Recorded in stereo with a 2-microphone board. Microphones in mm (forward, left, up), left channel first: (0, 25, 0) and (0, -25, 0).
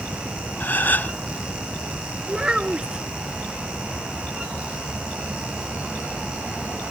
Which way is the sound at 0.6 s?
40° left (ahead or behind).